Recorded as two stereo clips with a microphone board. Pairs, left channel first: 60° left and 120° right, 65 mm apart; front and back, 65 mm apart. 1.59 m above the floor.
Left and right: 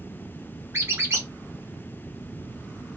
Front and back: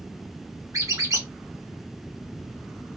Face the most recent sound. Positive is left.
turn(degrees=-165)